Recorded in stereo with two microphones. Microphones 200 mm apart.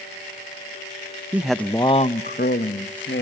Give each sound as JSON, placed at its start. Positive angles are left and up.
{"t": 1.3, "sound": "a man speaking", "side_deg": -10, "distance_m": 0.8}